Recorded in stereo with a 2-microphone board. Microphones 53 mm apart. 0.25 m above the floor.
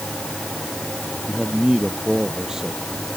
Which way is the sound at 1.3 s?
10° right (ahead or behind).